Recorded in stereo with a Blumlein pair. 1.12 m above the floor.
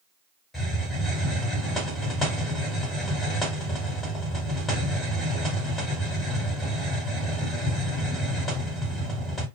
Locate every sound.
0.5 s a hiss: 15° left, 1.8 m